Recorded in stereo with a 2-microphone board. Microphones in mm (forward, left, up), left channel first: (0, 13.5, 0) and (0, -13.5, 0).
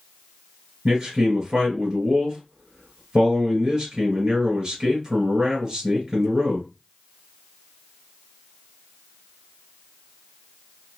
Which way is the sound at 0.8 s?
25° right (ahead or behind).